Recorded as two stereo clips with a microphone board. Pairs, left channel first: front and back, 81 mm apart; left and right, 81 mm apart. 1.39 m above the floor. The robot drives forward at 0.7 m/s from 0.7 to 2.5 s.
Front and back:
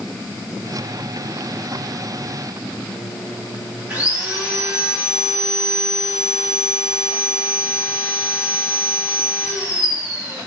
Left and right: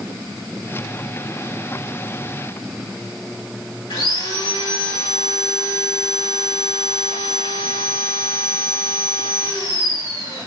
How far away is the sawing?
About 3 m.